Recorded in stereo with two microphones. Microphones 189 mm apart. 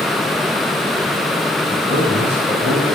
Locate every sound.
1.7 s a man speaking: 65° right (ahead or behind), 7 m